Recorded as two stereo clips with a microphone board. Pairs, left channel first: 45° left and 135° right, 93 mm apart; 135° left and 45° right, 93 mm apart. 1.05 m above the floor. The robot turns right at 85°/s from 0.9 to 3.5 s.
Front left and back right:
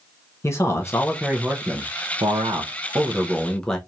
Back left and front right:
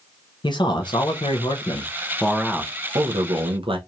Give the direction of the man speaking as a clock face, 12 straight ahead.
9 o'clock.